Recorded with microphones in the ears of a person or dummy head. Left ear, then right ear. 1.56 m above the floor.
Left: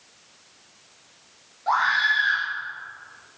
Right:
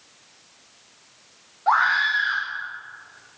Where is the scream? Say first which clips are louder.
Right 2 dB; 35° right (ahead or behind), 5 m.